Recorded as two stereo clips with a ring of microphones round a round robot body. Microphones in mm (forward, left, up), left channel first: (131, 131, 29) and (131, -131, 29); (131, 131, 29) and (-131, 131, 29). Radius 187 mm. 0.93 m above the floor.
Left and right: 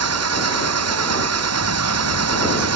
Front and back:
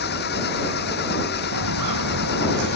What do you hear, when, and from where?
0.0 s an engine running: 65° right
1.5 s footsteps: 140° right; by 2.8 s 135° right